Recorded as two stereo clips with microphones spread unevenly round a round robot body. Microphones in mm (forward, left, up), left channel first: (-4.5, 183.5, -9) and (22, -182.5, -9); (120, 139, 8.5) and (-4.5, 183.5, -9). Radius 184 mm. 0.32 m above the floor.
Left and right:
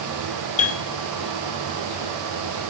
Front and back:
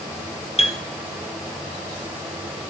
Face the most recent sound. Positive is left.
turn(degrees=25)